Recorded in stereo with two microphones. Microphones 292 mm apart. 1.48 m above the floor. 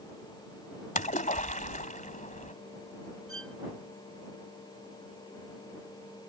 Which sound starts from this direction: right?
A violin, at 3.3 s.